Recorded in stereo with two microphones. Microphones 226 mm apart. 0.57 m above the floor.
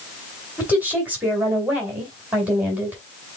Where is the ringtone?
No ringtone in this recording.